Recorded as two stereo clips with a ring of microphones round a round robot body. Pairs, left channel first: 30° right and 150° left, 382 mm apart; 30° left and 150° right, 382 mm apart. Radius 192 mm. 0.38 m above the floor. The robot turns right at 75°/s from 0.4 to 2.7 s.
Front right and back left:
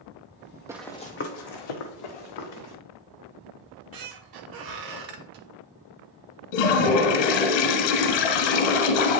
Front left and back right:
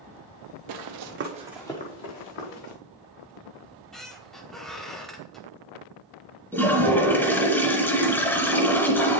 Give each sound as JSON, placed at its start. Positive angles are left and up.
{"t": 0.7, "sound": "running footsteps", "azimuth_deg": -130, "distance_m": 0.5}
{"t": 3.6, "sound": "a squeak", "azimuth_deg": 120, "distance_m": 1.0}
{"t": 6.5, "sound": "a toilet flushing", "azimuth_deg": -55, "distance_m": 0.9}